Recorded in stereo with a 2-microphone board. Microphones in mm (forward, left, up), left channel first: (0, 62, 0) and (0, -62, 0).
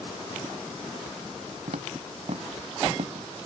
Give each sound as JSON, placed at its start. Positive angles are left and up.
{"t": 1.7, "sound": "footsteps", "side_deg": -70}